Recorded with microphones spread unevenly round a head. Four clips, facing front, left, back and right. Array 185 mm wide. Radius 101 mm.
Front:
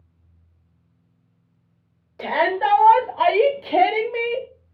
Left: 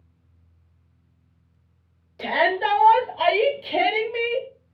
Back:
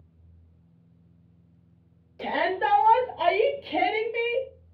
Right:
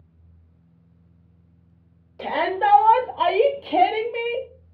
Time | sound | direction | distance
2.2 | a shout | 20° right | 1.7 m